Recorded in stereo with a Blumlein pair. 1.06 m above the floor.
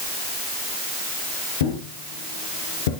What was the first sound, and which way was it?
A thud, 55° left.